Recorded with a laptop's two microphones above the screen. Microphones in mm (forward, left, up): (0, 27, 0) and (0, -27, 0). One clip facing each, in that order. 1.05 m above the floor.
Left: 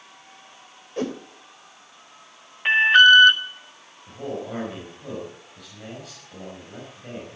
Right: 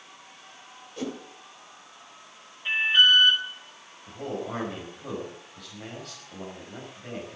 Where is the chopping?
I don't hear chopping.